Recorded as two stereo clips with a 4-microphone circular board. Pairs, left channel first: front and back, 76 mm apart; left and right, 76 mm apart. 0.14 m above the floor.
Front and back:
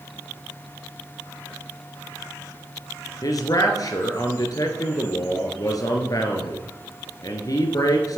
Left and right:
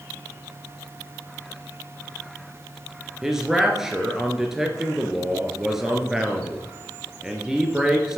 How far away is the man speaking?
About 1.9 m.